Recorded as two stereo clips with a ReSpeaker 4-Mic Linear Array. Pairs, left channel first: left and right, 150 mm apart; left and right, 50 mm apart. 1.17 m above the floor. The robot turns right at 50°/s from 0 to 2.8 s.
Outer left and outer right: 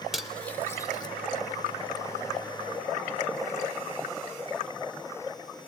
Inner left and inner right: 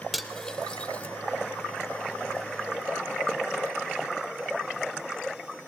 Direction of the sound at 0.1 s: 5° right (ahead or behind).